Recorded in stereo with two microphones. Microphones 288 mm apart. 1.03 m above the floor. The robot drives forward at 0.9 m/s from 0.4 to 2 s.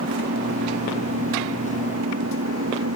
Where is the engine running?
55° right (ahead or behind); by 3.0 s 60° right (ahead or behind).